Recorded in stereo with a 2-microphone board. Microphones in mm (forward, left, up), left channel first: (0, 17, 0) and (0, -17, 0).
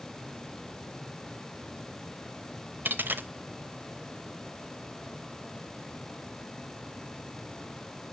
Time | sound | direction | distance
2.9 | a dropped coin | 85° right | 0.6 m